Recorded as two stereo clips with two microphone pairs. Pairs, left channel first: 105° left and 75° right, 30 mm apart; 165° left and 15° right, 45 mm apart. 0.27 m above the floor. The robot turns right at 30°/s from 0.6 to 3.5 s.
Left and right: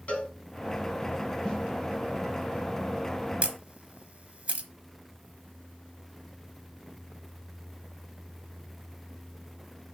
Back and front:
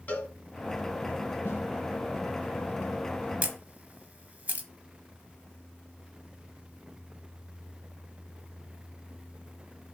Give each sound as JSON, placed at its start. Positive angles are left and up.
{"t": 0.1, "sound": "a cowbell", "azimuth_deg": 125, "distance_m": 2.0}
{"t": 1.4, "sound": "a snare drum", "azimuth_deg": 165, "distance_m": 3.0}
{"t": 3.4, "sound": "a camera shutter", "azimuth_deg": -65, "distance_m": 1.0}